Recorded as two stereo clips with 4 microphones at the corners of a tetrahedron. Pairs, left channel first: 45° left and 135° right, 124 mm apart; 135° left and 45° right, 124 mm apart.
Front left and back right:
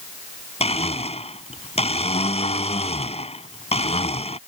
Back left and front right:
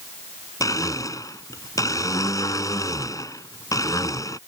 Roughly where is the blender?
Left.